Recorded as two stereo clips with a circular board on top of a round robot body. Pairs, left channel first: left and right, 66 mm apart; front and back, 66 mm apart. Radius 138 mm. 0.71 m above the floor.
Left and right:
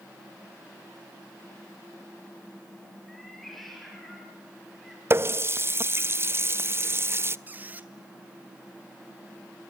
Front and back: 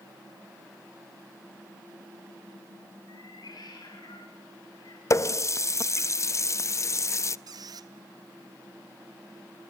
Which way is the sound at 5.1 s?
40° right.